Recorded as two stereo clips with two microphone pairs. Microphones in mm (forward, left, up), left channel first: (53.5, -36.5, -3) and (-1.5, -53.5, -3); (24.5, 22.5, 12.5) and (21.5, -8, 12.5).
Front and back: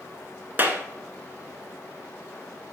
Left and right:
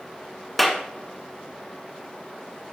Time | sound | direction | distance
0.6 | a clap | 165° left | 1.2 m